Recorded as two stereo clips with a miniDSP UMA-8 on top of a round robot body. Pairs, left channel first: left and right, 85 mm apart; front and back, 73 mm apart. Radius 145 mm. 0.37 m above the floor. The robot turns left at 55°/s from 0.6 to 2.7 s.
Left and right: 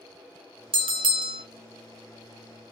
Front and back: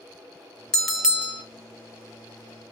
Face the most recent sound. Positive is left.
turn(degrees=170)